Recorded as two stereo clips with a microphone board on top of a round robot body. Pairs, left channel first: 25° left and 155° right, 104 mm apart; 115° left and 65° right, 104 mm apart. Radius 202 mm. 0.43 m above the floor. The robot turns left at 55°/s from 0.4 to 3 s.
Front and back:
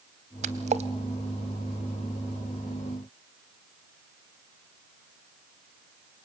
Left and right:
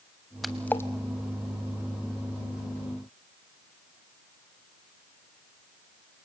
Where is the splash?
155° right, 0.6 m; by 0.9 s 175° left, 0.6 m.